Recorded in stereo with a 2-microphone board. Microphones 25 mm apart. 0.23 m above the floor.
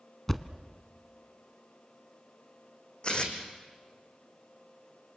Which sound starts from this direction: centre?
A thud, at 0.3 s.